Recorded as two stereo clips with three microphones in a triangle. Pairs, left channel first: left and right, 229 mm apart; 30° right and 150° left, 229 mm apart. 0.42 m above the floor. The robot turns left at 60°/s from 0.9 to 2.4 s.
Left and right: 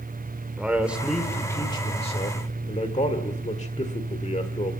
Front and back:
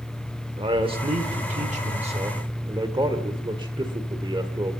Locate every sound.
0.6 s a man speaking: 170° right, 1.5 m; by 4.7 s 100° left, 1.5 m